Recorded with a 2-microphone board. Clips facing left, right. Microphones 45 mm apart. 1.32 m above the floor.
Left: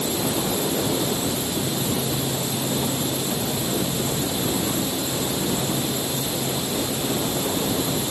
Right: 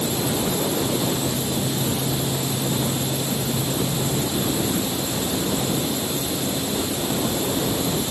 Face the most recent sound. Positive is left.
No sound to turn to.